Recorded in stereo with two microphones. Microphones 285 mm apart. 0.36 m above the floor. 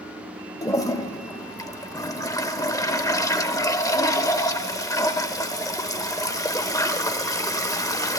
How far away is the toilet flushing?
About 0.6 m.